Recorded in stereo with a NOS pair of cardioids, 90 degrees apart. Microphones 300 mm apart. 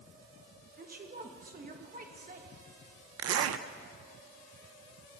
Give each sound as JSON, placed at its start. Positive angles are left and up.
{"t": 0.8, "sound": "a woman speaking", "azimuth_deg": -30, "distance_m": 1.4}
{"t": 3.2, "sound": "a zipper", "azimuth_deg": -55, "distance_m": 0.6}